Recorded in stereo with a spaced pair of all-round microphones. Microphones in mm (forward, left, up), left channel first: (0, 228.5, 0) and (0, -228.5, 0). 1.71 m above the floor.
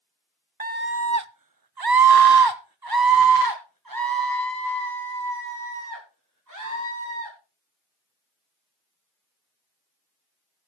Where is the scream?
20° right (ahead or behind), 0.7 m; by 7.3 s 40° right (ahead or behind), 3.5 m.